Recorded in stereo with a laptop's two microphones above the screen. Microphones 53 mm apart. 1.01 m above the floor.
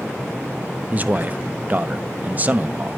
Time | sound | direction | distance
0.9 | a man speaking | 30° right (ahead or behind) | 0.5 m